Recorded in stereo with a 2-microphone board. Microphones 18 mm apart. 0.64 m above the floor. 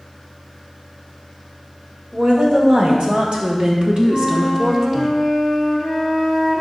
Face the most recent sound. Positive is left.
turn(degrees=-40)  # may be behind; listen again after turning